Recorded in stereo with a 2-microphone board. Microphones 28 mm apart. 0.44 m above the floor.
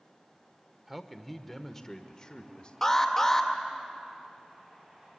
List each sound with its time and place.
0.9 s a man speaking: 10° right (ahead or behind), 1.2 m; by 2.7 s 35° left (ahead or behind), 1.4 m
2.8 s an alarm: 10° left (ahead or behind), 2 m